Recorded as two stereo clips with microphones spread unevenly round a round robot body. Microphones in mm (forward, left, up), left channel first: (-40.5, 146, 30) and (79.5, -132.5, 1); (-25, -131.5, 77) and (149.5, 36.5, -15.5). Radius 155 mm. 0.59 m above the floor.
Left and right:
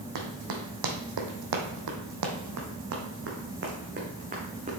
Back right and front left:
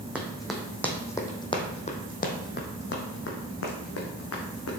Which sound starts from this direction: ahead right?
Running footsteps, at 0.1 s.